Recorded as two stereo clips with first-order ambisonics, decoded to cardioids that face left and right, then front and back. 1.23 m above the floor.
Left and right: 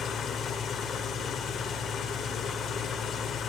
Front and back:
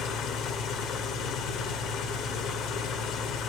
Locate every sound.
0.0 s an engine running: 40° left, 1.4 m